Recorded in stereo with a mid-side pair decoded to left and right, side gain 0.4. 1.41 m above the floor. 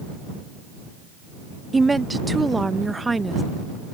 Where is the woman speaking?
20° right.